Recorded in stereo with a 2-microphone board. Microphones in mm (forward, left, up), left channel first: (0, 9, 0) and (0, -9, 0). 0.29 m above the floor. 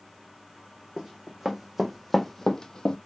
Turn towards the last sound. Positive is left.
turn(degrees=60)  # may be behind; listen again after turning